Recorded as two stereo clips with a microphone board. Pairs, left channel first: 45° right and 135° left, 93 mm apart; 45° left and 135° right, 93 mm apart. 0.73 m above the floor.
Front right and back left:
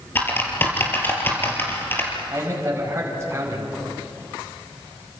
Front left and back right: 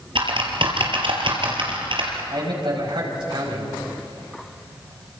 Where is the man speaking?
165° right, 5 m.